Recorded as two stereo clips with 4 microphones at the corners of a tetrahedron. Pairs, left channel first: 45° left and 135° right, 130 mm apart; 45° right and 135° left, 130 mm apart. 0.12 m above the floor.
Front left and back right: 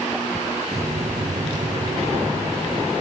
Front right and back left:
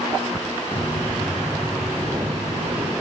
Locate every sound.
0.7 s footsteps: 100° right, 0.7 m; by 2.9 s straight behind, 1.1 m